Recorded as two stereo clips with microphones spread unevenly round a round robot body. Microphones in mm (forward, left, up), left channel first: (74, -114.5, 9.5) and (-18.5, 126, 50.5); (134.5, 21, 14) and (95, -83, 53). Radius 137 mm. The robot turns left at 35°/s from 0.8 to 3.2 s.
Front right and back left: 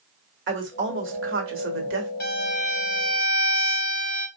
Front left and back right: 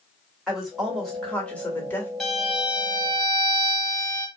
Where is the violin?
15° right, 2.5 m; by 4.3 s 50° right, 2.5 m.